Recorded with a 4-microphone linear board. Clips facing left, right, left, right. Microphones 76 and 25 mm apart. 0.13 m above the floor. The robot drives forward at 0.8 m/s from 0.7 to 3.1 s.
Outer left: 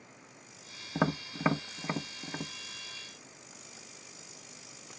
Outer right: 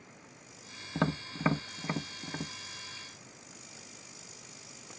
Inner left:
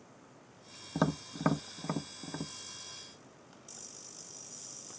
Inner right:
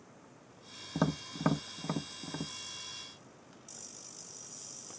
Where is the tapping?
10° left (ahead or behind); by 2.5 s 5° left (ahead or behind).